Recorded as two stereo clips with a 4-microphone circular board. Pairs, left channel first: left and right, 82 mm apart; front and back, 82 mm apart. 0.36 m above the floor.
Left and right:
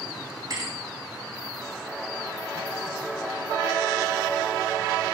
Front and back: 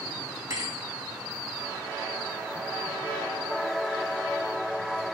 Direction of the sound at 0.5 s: 135° right.